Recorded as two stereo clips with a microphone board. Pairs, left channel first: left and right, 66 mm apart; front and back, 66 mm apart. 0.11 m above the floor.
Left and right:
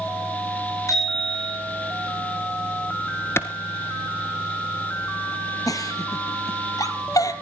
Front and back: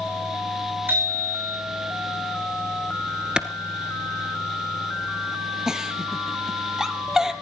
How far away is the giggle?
About 1.3 m.